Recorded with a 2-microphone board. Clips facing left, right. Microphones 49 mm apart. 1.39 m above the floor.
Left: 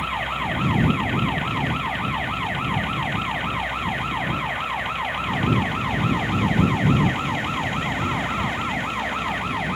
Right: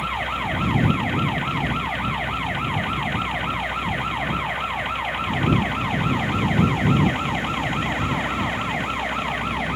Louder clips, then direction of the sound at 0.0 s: Even; 5° left (ahead or behind).